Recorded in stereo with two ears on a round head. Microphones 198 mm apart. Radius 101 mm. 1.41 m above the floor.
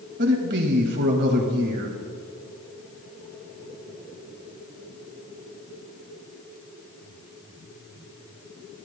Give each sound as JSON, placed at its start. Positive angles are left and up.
{"t": 0.2, "sound": "a man speaking", "side_deg": -50, "distance_m": 1.9}